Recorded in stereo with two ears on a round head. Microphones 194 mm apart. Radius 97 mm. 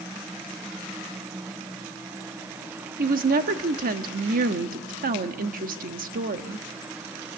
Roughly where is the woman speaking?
Right.